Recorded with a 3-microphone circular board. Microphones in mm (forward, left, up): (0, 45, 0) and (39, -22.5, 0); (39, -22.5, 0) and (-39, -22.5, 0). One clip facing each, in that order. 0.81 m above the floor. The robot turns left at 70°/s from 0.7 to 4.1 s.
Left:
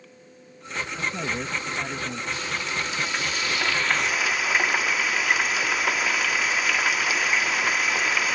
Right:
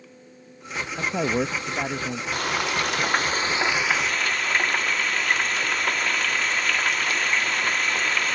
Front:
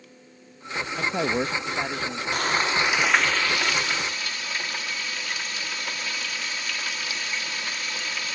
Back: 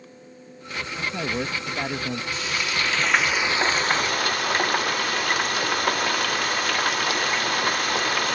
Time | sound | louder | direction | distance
1.0 | a man speaking | right 7 dB, front 3 dB | 40° right | ?
2.3 | frying | right 8 dB, front 7 dB | 30° right | ?